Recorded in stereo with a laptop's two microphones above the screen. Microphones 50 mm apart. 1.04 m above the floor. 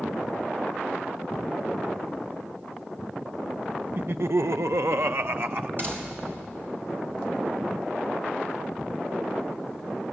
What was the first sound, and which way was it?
Laughter, 45° right (ahead or behind).